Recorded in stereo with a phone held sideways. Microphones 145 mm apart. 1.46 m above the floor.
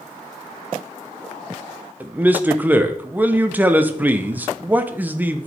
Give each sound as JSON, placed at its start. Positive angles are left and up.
{"t": 2.0, "sound": "a man speaking", "side_deg": -10, "distance_m": 0.7}